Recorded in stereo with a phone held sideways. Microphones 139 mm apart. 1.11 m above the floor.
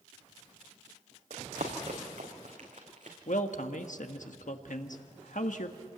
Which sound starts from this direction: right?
Running footsteps, at 1.3 s.